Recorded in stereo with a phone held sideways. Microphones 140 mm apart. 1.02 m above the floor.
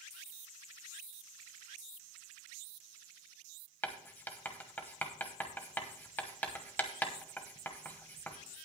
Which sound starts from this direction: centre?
Writing, at 3.8 s.